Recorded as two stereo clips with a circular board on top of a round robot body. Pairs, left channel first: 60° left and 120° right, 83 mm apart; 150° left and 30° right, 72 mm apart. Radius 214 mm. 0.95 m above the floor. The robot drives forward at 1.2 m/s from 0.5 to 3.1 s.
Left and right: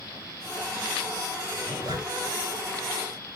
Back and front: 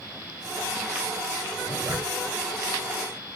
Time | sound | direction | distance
1.6 | a zipper | 65° right | 1.9 m